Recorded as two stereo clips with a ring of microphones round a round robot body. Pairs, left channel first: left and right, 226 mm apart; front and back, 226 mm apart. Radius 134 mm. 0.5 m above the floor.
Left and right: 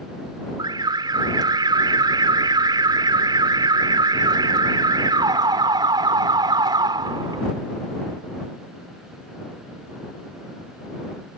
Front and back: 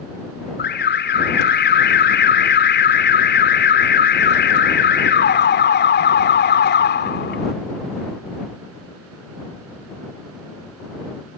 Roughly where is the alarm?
Ahead.